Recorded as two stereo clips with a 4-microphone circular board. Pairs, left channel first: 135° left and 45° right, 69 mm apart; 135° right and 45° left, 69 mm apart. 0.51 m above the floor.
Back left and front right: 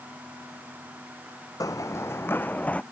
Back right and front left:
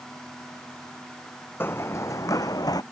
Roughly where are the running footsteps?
Behind.